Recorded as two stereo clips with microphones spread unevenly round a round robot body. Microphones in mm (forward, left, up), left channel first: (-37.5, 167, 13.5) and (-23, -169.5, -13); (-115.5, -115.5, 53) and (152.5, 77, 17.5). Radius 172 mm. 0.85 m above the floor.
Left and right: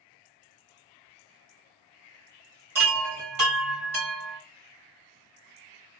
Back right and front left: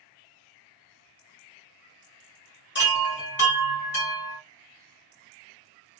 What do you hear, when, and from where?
2.8 s a chime: 85° right, 1.6 m